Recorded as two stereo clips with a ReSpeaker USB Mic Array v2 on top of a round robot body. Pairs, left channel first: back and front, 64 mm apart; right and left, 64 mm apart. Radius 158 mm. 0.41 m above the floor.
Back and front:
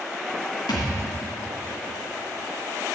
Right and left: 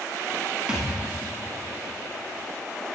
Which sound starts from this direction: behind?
A thud, at 0.7 s.